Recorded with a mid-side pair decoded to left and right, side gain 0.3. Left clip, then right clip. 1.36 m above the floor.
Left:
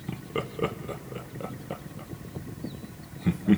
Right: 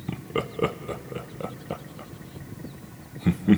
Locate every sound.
0.1 s laughter: 35° right, 0.6 m